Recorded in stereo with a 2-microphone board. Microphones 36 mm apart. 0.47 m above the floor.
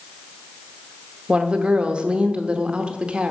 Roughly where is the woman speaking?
Right.